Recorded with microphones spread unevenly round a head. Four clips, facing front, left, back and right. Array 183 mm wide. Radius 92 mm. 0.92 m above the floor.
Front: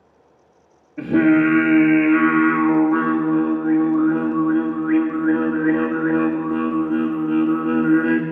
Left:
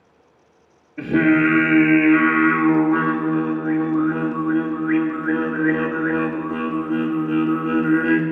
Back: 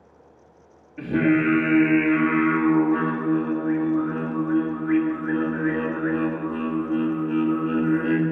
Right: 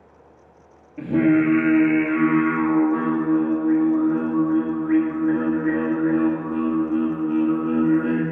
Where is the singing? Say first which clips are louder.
Left 1 dB, front 6 dB; 15° right, 2 m.